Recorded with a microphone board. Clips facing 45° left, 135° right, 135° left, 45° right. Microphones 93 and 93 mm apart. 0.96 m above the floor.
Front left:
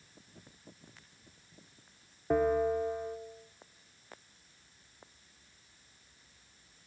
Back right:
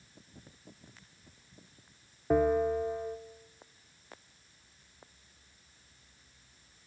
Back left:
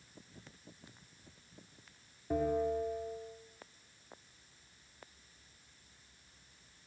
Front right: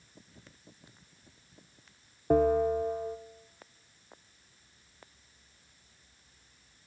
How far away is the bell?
About 0.9 m.